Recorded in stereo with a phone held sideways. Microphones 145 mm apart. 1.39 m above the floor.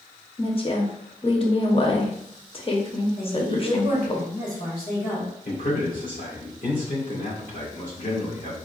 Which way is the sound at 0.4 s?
40° left (ahead or behind).